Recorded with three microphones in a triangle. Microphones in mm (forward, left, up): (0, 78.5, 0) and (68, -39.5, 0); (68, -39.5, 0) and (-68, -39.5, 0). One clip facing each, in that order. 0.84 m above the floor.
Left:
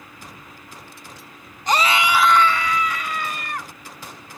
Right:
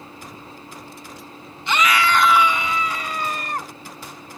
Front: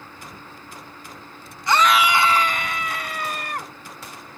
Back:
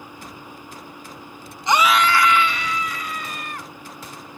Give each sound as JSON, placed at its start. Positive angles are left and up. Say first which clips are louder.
{"t": 1.7, "sound": "a scream", "louder": "even, even", "azimuth_deg": 125}